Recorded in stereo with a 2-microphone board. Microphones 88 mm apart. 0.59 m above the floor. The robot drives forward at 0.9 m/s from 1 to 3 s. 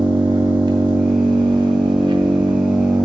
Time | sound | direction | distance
0.0 | an engine running | 65° right (ahead or behind) | 1.8 m